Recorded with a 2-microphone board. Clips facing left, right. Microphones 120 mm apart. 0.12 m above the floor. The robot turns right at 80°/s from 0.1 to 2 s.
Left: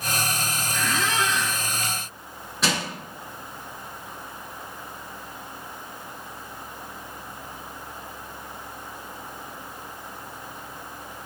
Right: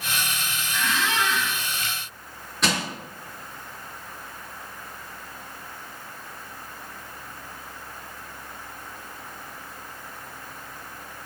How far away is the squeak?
About 0.7 m.